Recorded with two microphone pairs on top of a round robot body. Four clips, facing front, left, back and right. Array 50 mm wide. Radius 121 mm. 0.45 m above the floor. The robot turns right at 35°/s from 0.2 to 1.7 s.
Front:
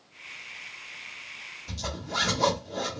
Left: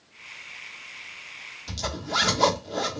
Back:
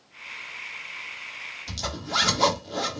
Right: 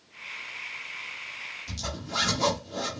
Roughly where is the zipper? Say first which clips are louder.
Left 9 dB, back 4 dB; behind left.